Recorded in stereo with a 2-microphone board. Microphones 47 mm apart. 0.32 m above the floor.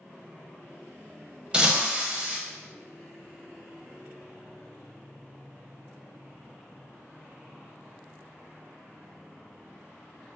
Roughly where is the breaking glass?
Centre.